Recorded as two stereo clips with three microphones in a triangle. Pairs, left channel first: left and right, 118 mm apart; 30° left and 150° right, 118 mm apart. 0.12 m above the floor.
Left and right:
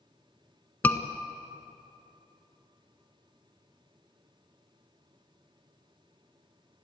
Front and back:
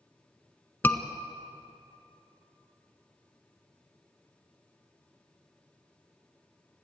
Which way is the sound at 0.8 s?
55° left.